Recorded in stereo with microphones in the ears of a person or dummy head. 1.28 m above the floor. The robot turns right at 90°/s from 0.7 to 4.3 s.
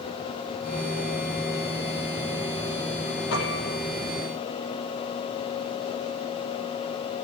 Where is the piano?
110° left, 5.5 m; by 3.8 s 150° left, 5.5 m.